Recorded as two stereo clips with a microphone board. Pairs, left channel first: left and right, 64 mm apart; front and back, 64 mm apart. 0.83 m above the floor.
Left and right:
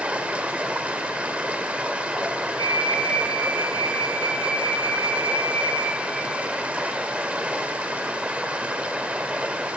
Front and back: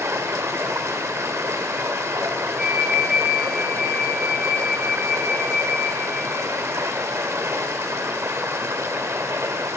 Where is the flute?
100° left, 0.7 m.